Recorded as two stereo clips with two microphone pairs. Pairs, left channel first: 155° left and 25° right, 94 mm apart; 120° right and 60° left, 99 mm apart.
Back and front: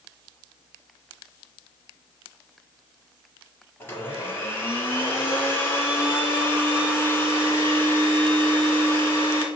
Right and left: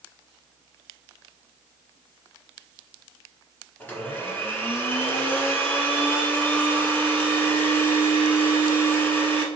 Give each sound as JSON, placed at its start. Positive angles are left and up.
{"t": 3.8, "sound": "a blender", "azimuth_deg": -165, "distance_m": 1.2}